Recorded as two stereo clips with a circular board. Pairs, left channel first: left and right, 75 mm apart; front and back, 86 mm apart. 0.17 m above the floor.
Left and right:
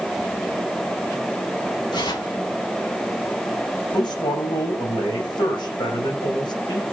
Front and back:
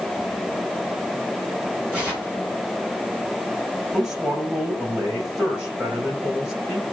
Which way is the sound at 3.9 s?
100° left.